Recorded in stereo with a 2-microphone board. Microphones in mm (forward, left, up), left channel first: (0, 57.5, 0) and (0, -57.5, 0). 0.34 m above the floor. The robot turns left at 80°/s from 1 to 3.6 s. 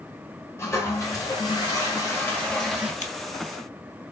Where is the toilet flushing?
140° left, 1.6 m; by 2.9 s 15° right, 1.6 m.